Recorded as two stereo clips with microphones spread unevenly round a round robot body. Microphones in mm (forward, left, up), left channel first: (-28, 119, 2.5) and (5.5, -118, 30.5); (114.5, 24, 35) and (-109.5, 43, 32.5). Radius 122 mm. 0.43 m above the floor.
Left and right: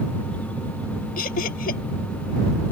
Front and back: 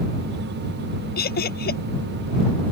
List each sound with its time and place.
1.2 s laughter: 40° left